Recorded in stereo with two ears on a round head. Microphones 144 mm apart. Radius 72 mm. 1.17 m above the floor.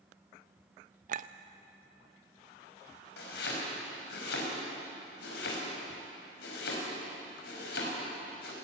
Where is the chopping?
80° left, 5 m.